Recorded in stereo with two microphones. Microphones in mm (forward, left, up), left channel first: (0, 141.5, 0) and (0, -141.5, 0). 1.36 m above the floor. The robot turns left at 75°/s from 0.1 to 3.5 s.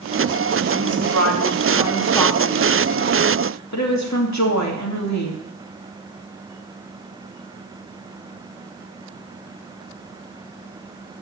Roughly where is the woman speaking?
Right.